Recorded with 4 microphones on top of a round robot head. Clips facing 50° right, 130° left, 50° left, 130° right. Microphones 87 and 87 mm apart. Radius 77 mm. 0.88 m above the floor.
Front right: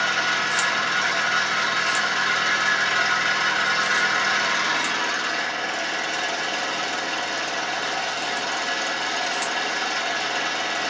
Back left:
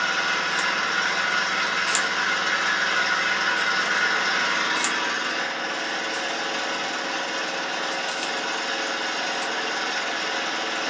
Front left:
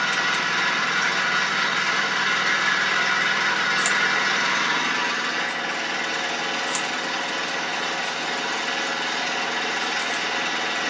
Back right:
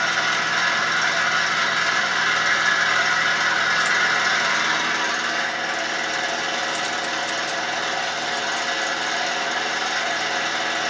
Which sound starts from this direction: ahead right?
An engine running, at 0.0 s.